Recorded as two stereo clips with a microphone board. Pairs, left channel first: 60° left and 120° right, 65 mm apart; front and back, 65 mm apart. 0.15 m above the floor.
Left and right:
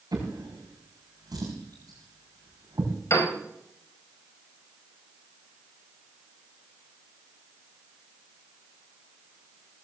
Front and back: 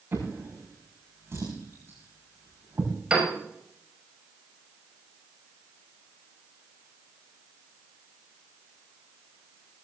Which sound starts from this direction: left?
A piano, at 3.1 s.